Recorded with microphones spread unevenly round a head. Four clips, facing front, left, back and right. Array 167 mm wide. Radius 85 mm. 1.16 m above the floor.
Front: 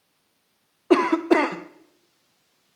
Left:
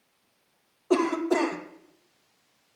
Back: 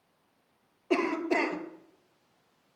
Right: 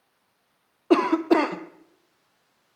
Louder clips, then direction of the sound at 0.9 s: Right 5 dB, front 10 dB; 30° right.